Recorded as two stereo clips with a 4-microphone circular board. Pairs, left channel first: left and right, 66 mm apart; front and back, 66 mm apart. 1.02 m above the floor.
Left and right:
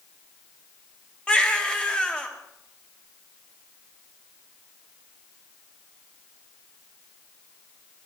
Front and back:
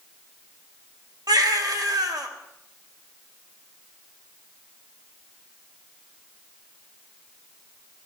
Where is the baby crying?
165° left, 1.5 m.